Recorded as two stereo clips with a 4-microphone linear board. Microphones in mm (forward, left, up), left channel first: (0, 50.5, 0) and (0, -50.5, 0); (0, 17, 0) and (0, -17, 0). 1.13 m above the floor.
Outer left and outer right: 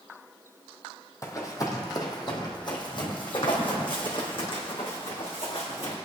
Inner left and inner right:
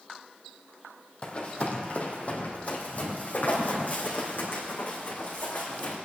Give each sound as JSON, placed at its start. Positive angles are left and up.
{"t": 1.2, "sound": "running footsteps", "side_deg": 30, "distance_m": 2.0}